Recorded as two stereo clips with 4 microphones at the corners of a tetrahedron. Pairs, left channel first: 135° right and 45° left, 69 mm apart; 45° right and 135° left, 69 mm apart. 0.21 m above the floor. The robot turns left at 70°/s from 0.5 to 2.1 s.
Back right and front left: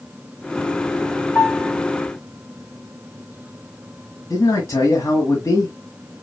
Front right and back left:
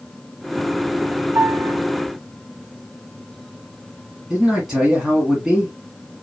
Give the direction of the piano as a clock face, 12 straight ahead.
6 o'clock.